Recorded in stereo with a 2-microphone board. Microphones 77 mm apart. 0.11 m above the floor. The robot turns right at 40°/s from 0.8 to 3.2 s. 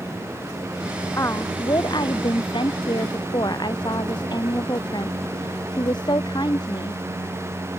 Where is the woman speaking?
35° left; by 7.0 s 115° left.